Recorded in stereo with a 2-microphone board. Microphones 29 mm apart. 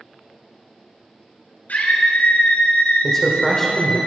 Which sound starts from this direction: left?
A scream, at 1.7 s.